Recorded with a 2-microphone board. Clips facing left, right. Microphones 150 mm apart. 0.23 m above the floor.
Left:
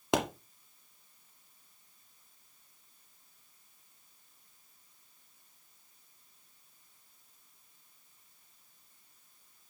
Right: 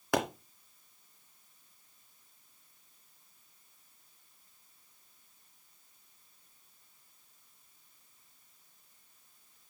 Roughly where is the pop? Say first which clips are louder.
Left 1 dB; left.